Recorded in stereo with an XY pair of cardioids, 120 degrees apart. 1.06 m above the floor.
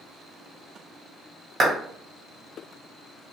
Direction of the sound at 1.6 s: 40° right.